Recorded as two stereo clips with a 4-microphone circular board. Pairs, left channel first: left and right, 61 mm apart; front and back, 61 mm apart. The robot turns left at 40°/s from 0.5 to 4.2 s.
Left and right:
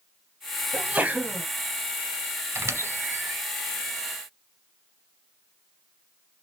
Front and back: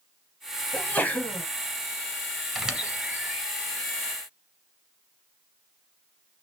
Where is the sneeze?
35° right, 1.2 m; by 1.4 s 60° right, 1.2 m.